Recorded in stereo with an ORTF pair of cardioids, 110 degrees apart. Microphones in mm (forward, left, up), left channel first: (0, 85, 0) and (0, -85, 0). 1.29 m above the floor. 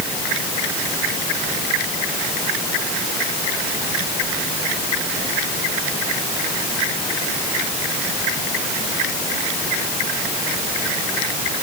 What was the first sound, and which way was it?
Only background noise.